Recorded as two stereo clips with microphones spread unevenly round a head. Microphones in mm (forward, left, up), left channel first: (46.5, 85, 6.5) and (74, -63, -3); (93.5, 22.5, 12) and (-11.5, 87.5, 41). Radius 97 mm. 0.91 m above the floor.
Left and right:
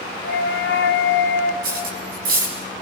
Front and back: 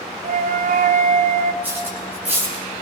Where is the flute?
130° left, 1.1 m.